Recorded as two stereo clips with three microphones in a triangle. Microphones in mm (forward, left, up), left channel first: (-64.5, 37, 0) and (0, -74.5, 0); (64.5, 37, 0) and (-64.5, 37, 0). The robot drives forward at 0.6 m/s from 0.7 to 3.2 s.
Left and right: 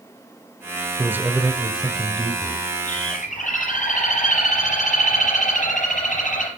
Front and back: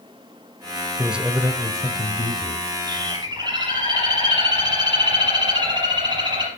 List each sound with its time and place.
1.0 s a man speaking: 100° right, 1.1 m; by 2.7 s 160° right, 1.5 m
2.9 s a bird: 125° left, 4 m